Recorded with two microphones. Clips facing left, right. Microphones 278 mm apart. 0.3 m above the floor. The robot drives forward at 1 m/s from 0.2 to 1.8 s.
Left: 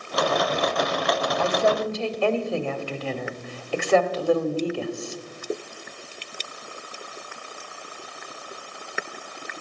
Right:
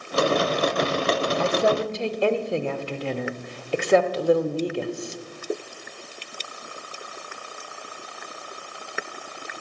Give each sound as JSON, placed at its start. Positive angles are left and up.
{"t": 1.4, "sound": "a woman speaking", "side_deg": -20, "distance_m": 0.9}